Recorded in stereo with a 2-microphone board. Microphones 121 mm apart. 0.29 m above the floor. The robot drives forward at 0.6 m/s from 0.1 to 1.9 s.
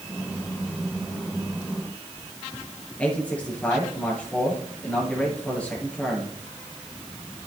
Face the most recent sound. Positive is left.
turn(degrees=10)  # may be behind; listen again after turning